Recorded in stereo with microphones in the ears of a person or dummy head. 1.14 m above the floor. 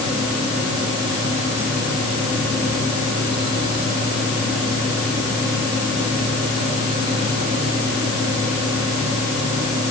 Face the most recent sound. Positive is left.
turn(degrees=-20)  # may be behind; listen again after turning